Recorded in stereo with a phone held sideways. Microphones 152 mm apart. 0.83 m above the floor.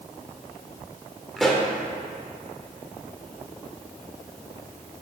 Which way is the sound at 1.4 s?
Centre (ahead or behind).